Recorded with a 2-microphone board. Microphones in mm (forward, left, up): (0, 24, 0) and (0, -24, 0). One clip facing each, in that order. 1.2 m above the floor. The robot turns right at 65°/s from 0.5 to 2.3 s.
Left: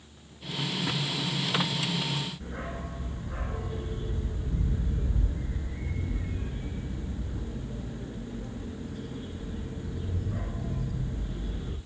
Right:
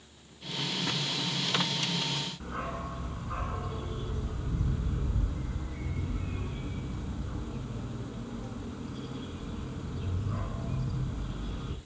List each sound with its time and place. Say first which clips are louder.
2.4 s a dog barking: right 1 dB; 75° right (ahead or behind), 4 m